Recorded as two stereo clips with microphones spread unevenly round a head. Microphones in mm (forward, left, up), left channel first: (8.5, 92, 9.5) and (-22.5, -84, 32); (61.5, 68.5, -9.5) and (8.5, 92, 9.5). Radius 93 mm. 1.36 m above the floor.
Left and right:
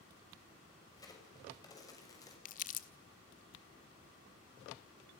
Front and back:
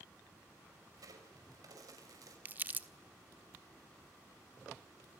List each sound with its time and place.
0.9 s a crack: 150° left, 6.5 m
2.5 s crumpling: 125° left, 1.3 m